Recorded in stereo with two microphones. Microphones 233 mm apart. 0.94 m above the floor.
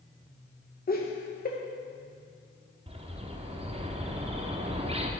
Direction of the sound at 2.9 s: 25° right (ahead or behind).